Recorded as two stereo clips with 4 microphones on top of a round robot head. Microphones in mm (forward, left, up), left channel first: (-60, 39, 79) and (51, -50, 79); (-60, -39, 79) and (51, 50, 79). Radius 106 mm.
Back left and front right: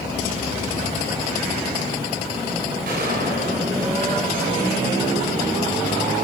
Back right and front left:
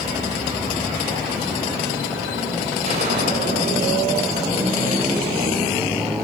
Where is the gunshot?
10° right, 4 m.